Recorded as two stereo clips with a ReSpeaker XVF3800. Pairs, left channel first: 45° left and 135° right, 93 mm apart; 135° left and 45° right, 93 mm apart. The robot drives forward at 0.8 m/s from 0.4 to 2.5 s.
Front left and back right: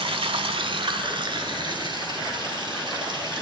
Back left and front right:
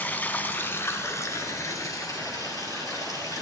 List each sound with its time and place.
0.0 s running water: 155° right, 0.8 m; by 3.4 s 170° right, 2.5 m